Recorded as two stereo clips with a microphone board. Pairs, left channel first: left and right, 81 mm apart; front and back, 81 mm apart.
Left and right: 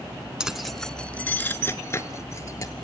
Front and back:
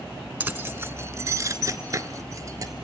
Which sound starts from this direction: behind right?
Keys jangling, at 0.4 s.